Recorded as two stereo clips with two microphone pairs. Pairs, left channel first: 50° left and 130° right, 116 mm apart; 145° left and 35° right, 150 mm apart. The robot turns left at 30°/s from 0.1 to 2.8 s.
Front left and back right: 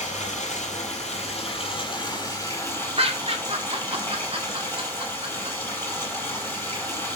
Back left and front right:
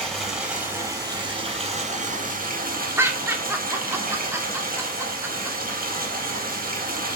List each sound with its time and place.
0.0 s running water: 60° left, 5 m; by 7.2 s 20° right, 5 m
3.0 s laughter: 105° right, 2.5 m